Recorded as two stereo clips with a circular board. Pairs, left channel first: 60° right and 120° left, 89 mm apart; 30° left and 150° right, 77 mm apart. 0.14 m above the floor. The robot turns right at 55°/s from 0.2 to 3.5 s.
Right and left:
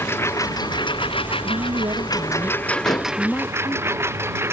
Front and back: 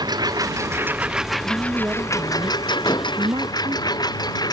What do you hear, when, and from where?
0.0 s a lawn mower: 125° right; by 4.5 s 55° left
1.4 s a woman speaking: 125° left; by 3.9 s 125° right
2.9 s dishes clattering: 15° right; by 3.2 s straight ahead